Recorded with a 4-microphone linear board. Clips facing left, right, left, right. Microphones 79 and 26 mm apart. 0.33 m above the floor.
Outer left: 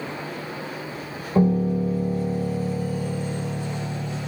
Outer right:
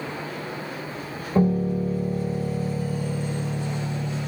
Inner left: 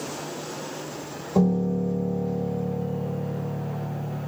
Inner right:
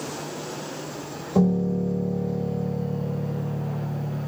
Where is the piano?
5° left (ahead or behind), 1.4 m.